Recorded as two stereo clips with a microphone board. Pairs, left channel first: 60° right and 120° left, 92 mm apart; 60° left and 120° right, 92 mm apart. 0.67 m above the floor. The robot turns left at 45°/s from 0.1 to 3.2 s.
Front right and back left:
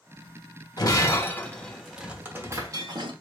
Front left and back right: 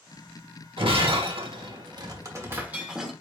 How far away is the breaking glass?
About 1.1 m.